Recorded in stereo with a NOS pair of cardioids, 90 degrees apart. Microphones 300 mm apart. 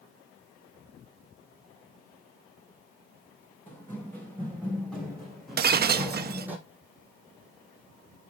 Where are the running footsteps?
5° left, 3.5 m; by 6.6 s 5° right, 2 m.